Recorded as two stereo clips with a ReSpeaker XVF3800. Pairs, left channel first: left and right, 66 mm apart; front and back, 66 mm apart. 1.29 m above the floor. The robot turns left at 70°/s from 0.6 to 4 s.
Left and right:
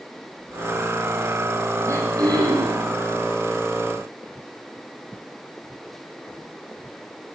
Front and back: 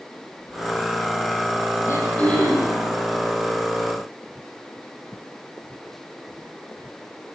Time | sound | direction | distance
1.9 | throat clearing | 40° right | 9.5 m